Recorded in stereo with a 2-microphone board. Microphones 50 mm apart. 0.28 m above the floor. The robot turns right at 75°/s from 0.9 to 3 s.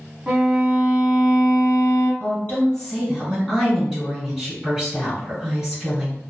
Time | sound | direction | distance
0.3 | a violin | 15° right | 0.7 m
2.2 | a woman speaking | 125° left | 1.9 m